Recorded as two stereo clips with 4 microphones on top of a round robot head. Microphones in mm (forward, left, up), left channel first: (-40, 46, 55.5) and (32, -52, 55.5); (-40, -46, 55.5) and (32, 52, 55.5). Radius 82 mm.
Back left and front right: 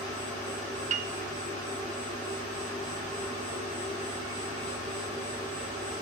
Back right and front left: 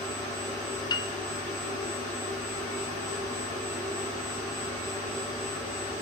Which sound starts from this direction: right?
A piano, at 0.9 s.